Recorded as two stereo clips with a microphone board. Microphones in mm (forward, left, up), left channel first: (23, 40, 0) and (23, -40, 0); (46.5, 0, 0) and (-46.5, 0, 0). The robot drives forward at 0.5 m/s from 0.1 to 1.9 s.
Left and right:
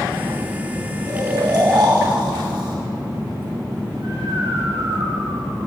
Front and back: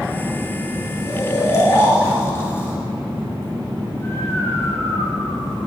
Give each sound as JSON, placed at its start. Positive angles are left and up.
{"t": 1.1, "sound": "snoring", "azimuth_deg": -50, "distance_m": 1.9}